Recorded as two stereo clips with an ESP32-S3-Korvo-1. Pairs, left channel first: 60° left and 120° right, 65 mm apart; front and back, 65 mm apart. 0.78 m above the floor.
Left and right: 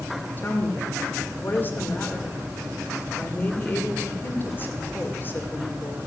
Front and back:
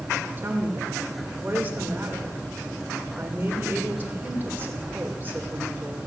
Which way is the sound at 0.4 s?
120° left.